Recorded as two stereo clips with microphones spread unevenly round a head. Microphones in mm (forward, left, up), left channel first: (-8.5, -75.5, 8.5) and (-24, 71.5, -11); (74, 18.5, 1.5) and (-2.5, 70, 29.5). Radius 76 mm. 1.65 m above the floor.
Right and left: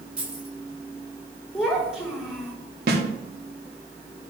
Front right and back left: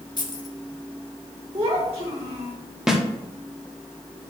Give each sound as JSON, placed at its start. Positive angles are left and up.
{"t": 0.2, "sound": "keys jangling", "azimuth_deg": 10, "distance_m": 2.0}
{"t": 1.5, "sound": "a child speaking", "azimuth_deg": -175, "distance_m": 3.0}
{"t": 2.9, "sound": "a snare drum", "azimuth_deg": 65, "distance_m": 1.3}